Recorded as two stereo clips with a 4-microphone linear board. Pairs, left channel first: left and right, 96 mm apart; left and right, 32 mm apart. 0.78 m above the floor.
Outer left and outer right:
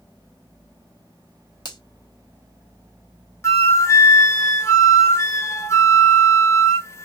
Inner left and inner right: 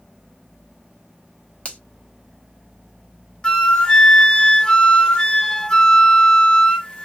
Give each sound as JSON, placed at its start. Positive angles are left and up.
{"t": 1.6, "sound": "a finger snap", "side_deg": 45, "distance_m": 1.0}
{"t": 3.4, "sound": "a flute", "side_deg": 30, "distance_m": 0.6}